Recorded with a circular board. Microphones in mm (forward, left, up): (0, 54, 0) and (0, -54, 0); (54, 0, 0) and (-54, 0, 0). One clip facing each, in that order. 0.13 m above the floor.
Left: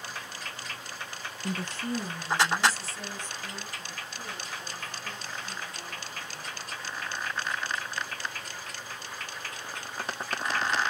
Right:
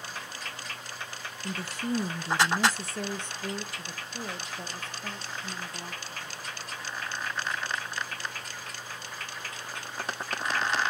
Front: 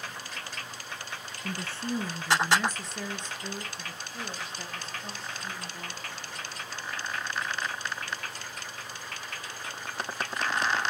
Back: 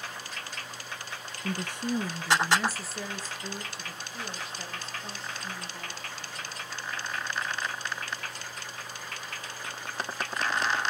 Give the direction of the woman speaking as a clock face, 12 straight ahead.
7 o'clock.